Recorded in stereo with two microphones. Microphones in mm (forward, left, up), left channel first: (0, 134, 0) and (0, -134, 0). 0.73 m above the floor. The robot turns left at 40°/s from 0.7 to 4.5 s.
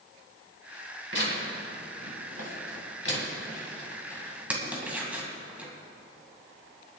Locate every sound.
1.1 s tearing paper: 50° left (ahead or behind), 2.5 m; by 5.7 s 5° right (ahead or behind), 2.5 m